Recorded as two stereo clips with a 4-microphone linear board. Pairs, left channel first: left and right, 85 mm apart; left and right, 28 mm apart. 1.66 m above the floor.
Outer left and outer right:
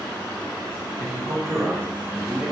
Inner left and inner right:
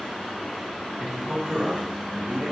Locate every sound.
1.0 s a man speaking: 55° right (ahead or behind), 1.2 m; by 2.5 s 10° right (ahead or behind), 1.4 m